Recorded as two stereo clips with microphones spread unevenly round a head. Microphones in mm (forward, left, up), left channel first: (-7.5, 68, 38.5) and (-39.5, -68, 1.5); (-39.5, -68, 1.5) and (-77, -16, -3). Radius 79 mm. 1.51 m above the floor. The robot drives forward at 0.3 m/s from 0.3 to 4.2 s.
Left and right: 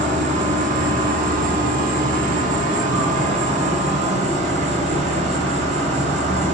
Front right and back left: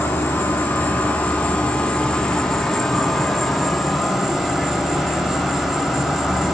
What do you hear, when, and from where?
0.0 s an insect: 65° right, 1.1 m; by 6.5 s 145° right, 1.4 m